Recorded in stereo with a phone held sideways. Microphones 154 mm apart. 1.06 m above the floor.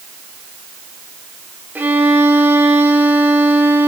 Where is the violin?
10° right (ahead or behind), 3.5 m.